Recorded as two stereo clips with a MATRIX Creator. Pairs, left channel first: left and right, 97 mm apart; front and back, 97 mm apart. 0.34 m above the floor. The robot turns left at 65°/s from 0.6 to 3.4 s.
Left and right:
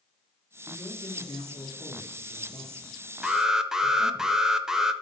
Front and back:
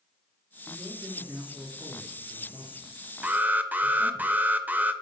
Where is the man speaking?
145° left, 4 m; by 4.2 s 35° right, 4 m.